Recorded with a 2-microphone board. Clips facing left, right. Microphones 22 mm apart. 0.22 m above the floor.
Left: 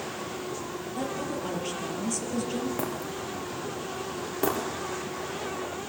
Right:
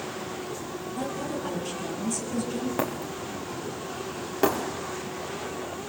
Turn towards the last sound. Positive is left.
turn(degrees=-15)  # may be behind; listen again after turning